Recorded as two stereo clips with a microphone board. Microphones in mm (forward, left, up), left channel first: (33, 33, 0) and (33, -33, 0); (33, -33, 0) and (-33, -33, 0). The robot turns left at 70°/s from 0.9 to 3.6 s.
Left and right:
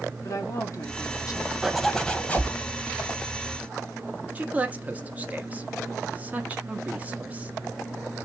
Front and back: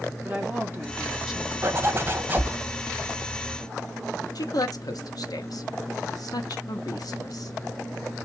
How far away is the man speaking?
About 1.2 m.